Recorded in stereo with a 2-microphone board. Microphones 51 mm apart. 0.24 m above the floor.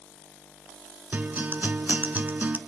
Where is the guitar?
35° right (ahead or behind), 1.1 m.